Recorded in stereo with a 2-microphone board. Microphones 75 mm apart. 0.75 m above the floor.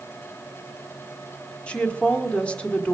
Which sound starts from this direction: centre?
A woman speaking, at 1.7 s.